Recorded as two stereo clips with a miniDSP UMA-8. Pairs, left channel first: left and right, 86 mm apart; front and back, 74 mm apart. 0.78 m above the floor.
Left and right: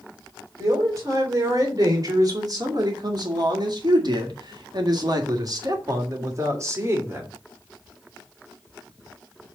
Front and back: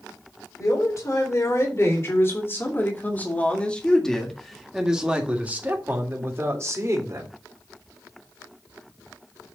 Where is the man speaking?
40° right, 3 m; by 7.3 s 145° right, 2.5 m.